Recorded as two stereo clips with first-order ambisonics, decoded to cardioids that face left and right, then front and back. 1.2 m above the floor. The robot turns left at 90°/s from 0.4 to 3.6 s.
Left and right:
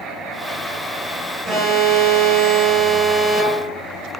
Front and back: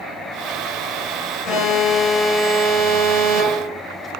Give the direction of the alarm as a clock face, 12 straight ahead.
1 o'clock.